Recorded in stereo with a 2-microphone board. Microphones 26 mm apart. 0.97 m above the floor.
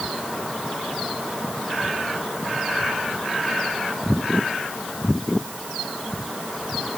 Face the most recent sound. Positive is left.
No sound to turn to.